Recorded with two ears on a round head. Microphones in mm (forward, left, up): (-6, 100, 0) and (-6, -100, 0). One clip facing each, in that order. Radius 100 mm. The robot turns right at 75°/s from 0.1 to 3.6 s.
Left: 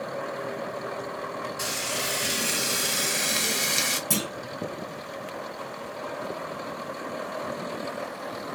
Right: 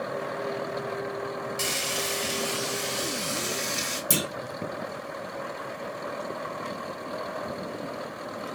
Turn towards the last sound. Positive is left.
turn(degrees=-20)  # may be behind; listen again after turning